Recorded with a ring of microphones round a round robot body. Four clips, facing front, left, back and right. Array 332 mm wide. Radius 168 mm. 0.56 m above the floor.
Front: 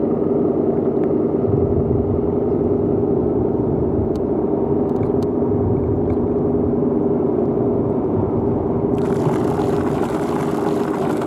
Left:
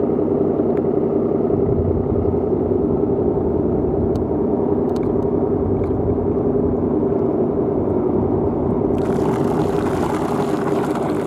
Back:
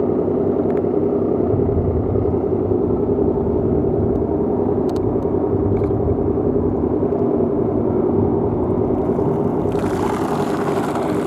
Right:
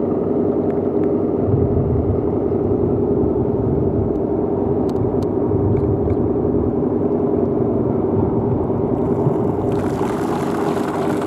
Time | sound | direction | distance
1.4 | a rattle | 90° right | 8 m